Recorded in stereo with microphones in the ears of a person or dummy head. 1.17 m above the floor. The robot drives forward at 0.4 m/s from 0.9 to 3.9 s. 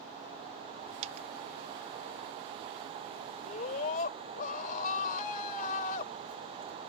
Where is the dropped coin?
35° right (ahead or behind).